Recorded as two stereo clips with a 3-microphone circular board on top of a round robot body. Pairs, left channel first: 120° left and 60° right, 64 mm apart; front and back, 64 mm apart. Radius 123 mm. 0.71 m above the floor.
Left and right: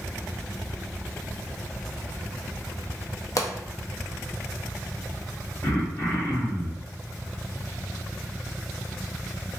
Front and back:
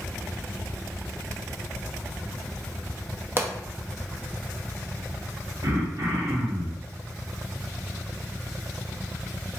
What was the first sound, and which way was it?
A pop, 130° left.